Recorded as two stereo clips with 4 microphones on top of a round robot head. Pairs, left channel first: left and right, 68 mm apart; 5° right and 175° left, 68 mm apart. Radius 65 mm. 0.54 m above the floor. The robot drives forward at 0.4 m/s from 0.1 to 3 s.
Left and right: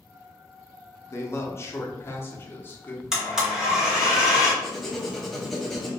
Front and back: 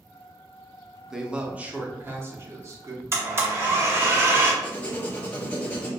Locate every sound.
1.1 s a man speaking: 95° left, 0.8 m; by 3.0 s 145° left, 1.2 m
3.1 s a blender: 165° right, 1.5 m
4.6 s writing: 5° left, 0.9 m